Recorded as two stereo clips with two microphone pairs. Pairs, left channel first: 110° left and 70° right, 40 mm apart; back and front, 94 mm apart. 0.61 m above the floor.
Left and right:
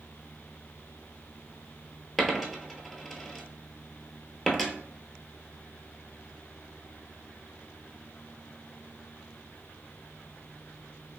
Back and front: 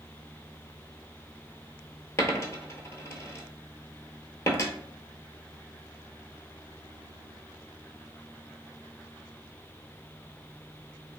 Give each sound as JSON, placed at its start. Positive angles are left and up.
{"t": 2.2, "sound": "a dropped coin", "azimuth_deg": -160, "distance_m": 0.6}